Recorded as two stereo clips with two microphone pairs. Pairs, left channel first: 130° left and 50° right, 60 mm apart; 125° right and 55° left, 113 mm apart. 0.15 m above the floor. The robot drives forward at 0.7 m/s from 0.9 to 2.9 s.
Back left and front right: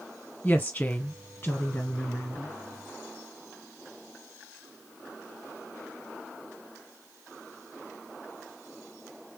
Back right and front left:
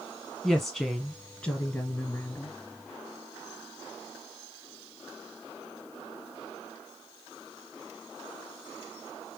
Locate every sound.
0.4 s a woman speaking: 160° left, 1.4 m; by 2.6 s 175° left, 2 m